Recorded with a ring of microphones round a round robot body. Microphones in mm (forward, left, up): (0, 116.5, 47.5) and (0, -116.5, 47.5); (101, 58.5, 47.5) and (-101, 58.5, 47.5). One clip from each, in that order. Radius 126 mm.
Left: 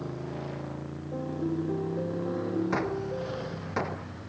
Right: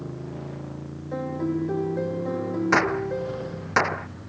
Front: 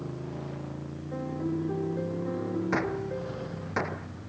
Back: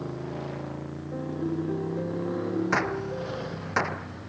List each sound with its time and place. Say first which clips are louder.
0.0 s a motorcycle: even, back 4 dB; 145° left; by 4.3 s 155° left
1.1 s a piano: right 5 dB, back 1 dB; 80° right
2.7 s a gunshot: right 8 dB, back 3 dB; 115° right